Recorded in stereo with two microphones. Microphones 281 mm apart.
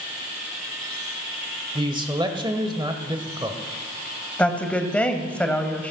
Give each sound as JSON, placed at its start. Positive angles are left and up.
{"t": 1.8, "sound": "a man speaking", "side_deg": -15, "distance_m": 0.9}
{"t": 4.4, "sound": "a woman speaking", "side_deg": 5, "distance_m": 1.1}